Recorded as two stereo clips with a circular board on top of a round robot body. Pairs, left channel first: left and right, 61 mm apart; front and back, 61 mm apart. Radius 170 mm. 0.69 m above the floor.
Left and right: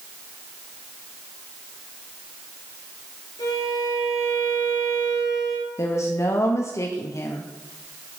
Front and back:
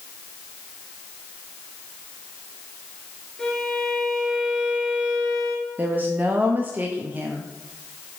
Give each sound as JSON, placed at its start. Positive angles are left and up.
{"t": 3.4, "sound": "a violin", "azimuth_deg": 90, "distance_m": 2.5}
{"t": 5.8, "sound": "a woman speaking", "azimuth_deg": 125, "distance_m": 0.9}